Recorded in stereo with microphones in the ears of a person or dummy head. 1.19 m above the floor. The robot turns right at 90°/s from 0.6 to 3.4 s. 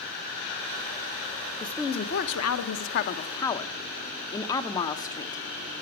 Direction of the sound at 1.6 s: Straight ahead.